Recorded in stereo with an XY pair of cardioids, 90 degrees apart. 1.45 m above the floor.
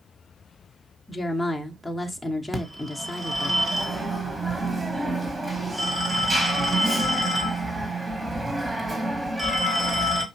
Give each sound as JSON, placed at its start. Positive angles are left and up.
{"t": 1.1, "sound": "a woman speaking", "azimuth_deg": 10, "distance_m": 0.8}
{"t": 2.5, "sound": "a phone ringing", "azimuth_deg": -20, "distance_m": 1.4}